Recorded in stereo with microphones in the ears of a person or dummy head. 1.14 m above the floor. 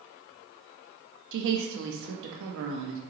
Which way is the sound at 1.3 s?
65° right (ahead or behind).